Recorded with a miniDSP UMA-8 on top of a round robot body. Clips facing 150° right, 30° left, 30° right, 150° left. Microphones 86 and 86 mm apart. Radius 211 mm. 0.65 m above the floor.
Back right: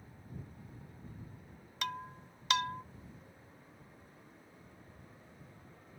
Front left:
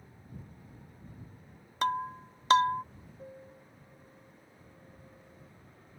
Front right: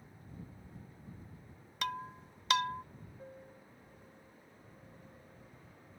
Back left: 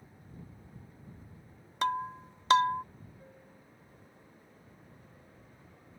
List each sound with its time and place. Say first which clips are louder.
1.8 s breaking glass: front left 10 dB, back left 8 dB; 90° left
3.2 s a piano: front left 9 dB, front right 3 dB; 35° left